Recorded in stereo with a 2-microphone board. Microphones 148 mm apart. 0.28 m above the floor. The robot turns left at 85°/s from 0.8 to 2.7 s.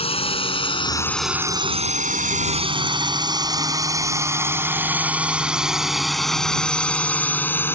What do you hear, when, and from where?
0.0 s a drone: 40° left (ahead or behind); by 7.8 s 15° left (ahead or behind)